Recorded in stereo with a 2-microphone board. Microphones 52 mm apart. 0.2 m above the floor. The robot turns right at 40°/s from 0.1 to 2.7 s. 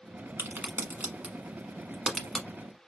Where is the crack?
50° right (ahead or behind), 1.0 m; by 2.5 s 10° left (ahead or behind), 1.0 m.